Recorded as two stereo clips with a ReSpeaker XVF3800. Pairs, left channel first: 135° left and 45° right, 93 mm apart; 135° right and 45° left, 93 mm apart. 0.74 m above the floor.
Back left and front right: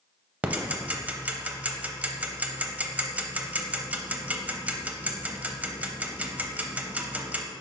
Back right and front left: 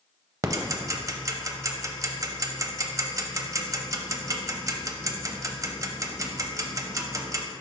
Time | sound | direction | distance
0.4 | ticking | 20° left | 0.6 m